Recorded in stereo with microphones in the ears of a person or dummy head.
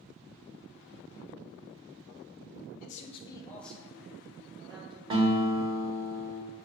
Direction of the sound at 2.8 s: 45° left (ahead or behind).